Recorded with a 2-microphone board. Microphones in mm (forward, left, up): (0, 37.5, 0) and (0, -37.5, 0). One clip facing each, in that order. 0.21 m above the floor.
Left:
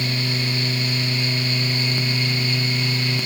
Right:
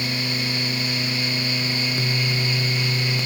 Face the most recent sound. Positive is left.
No sound to turn to.